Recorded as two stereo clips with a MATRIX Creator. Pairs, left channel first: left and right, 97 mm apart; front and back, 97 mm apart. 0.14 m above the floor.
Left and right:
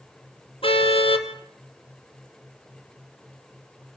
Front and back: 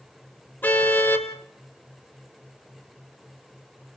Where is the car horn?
70° left, 2.5 m.